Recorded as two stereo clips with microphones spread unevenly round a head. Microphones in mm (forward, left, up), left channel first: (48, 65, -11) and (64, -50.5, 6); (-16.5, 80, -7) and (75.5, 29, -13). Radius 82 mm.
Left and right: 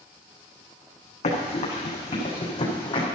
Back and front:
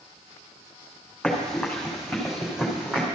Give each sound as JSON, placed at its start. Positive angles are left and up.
{"t": 1.2, "sound": "running footsteps", "azimuth_deg": 65, "distance_m": 5.0}